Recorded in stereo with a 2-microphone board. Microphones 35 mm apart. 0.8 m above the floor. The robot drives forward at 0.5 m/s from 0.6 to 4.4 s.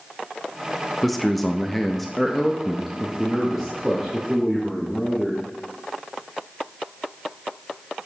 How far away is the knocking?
No knocking in this recording.